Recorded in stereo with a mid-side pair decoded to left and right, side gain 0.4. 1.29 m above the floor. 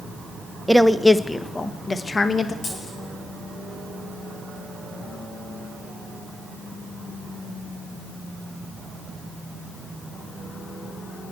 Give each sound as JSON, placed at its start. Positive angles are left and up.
{"t": 0.7, "sound": "a woman speaking", "azimuth_deg": -5, "distance_m": 1.0}
{"t": 2.6, "sound": "a dropped coin", "azimuth_deg": 55, "distance_m": 8.5}